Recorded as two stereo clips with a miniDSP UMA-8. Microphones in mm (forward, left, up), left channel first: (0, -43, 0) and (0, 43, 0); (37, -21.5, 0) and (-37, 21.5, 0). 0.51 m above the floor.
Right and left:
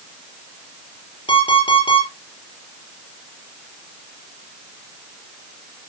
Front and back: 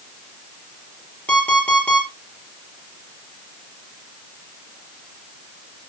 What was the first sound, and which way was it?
An alarm clock, 105° right.